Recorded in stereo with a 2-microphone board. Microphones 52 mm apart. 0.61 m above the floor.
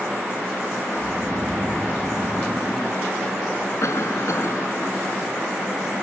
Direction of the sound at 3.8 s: 70° left (ahead or behind).